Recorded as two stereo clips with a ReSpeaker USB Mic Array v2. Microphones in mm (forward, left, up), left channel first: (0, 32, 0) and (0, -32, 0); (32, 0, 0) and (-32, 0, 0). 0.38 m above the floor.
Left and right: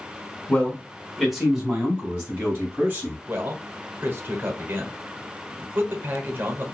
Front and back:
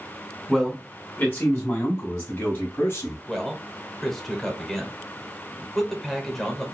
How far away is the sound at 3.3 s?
About 1.0 m.